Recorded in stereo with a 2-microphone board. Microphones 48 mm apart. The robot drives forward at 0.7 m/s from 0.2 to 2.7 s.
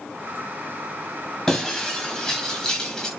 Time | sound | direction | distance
1.5 | breaking glass | 10° left (ahead or behind) | 6 m